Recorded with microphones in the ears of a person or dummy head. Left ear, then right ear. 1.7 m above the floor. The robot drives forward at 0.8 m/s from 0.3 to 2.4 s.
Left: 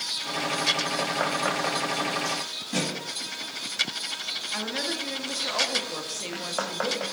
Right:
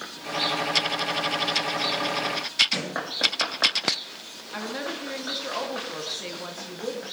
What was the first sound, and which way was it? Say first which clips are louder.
A thud: right 1 dB; 55° right (ahead or behind).